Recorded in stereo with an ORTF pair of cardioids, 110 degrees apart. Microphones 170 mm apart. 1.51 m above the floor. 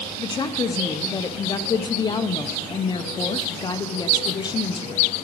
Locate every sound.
0.2 s a woman speaking: 25° left, 0.7 m